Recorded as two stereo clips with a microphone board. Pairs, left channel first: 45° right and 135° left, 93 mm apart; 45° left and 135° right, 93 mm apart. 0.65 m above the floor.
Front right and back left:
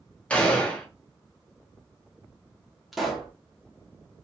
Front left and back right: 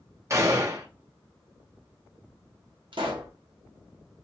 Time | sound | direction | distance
0.3 | a gunshot | 115° right | 0.7 m
2.9 | a pop | 135° right | 0.7 m